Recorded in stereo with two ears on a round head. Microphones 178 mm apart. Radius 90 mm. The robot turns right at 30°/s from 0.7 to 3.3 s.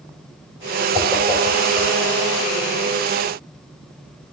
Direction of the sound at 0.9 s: 10° right (ahead or behind).